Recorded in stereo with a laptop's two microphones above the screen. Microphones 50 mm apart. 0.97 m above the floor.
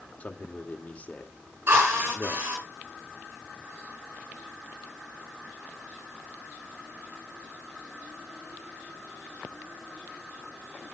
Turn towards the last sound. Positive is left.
turn(degrees=-45)  # may be behind; listen again after turning